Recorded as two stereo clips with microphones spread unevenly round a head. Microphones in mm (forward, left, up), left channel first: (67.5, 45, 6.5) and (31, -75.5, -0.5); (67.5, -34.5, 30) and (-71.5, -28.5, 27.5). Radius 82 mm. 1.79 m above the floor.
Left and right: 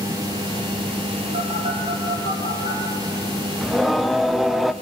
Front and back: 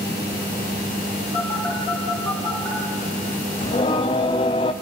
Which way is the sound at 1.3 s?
90° right.